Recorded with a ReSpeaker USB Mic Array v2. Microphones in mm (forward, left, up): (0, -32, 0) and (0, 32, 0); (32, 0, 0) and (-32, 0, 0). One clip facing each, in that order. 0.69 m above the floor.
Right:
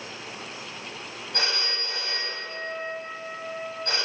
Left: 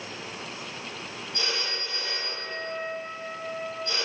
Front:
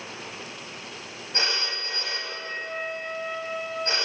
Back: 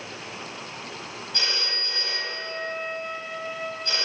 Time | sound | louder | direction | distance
1.3 | a phone ringing | right 3 dB, front 2 dB | 60° right | 3 m